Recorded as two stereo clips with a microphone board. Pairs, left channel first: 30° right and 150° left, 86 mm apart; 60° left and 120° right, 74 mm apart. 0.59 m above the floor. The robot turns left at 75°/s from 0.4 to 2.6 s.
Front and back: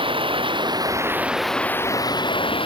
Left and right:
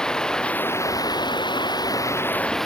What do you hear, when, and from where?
0.0 s running water: 140° left; by 2.7 s 25° right